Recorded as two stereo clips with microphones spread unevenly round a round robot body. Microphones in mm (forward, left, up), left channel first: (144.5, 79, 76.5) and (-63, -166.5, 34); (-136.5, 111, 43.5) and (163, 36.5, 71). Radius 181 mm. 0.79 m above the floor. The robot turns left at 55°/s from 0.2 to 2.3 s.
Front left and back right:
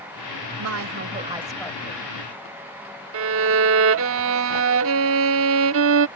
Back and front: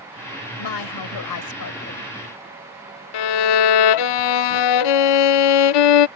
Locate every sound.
0.6 s a woman speaking: 170° right; by 2.0 s 115° left
3.1 s a violin: 175° left